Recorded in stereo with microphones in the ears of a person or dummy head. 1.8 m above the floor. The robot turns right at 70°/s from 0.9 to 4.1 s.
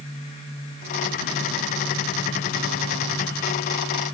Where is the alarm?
No alarm in this recording.